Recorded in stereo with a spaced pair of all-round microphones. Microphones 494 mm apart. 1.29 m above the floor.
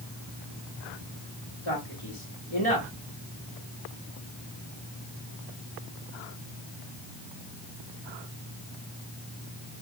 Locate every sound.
1.6 s a man speaking: 75° left (ahead or behind), 3 m